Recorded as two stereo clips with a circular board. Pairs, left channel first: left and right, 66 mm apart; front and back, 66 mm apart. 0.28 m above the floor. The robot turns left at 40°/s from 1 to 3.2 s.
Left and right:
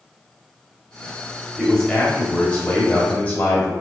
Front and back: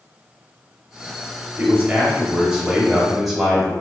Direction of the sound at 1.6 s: 160° left.